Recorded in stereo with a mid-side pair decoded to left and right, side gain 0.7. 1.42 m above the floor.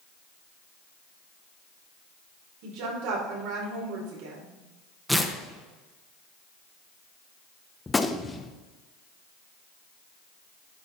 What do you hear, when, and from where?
2.6 s a woman speaking: 65° right, 4.5 m
5.1 s tearing paper: straight ahead, 1.5 m
7.9 s a gunshot: 15° left, 1.0 m